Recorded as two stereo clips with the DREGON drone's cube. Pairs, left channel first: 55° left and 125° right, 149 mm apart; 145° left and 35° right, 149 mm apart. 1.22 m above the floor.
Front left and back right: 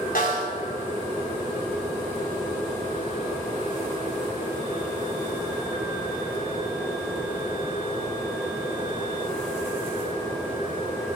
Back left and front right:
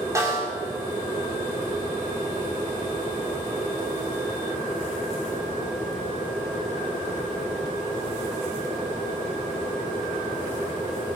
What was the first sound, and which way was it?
A snare drum, 35° left.